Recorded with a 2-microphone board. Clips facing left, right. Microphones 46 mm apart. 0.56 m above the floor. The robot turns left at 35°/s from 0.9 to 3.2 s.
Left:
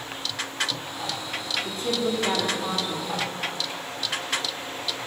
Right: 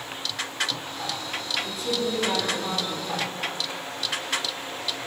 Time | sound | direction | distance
1.6 | a woman speaking | 90° left | 1.4 m